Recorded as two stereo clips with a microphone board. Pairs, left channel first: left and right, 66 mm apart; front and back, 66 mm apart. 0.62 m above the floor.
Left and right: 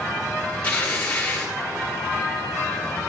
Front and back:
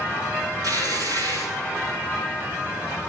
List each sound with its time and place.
0.6 s tearing paper: 165° left, 9.5 m